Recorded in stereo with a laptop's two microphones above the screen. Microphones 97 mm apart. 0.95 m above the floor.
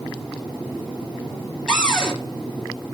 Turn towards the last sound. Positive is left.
turn(degrees=5)  # may be behind; listen again after turning